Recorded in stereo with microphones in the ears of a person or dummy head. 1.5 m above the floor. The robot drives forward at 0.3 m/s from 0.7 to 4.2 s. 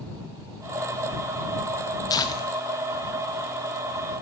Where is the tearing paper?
15° left (ahead or behind), 0.7 m; by 3.5 s 10° left (ahead or behind), 1.1 m.